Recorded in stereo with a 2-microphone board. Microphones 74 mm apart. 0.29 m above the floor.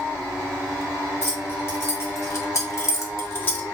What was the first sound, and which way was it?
Keys jangling, 30° left (ahead or behind).